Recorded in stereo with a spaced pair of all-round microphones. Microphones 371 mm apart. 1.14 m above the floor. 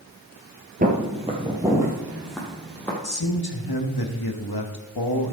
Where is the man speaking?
80° left, 1.5 m.